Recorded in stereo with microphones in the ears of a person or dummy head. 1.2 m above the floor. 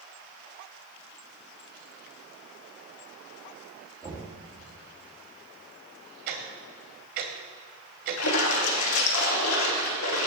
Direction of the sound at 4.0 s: 20° right (ahead or behind).